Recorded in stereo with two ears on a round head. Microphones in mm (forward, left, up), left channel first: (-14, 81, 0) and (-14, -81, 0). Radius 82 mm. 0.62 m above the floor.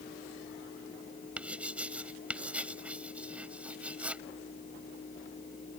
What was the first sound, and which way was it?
Writing, 5° right (ahead or behind).